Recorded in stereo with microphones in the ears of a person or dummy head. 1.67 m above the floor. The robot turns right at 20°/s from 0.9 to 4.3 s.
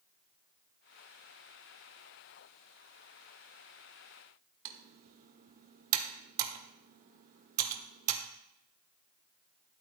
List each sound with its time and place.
4.7 s typing on a keyboard: 40° right (ahead or behind), 1.1 m